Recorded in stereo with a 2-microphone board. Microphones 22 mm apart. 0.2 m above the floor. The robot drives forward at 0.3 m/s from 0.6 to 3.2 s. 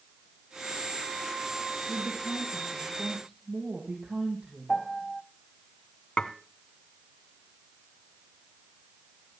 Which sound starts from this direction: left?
Dishes clattering, at 6.2 s.